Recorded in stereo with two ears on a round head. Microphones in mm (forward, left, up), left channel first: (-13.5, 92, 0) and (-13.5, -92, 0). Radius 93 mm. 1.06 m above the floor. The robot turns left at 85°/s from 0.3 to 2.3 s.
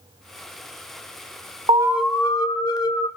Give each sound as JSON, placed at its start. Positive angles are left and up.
{"t": 1.7, "sound": "an alarm", "azimuth_deg": -150, "distance_m": 2.0}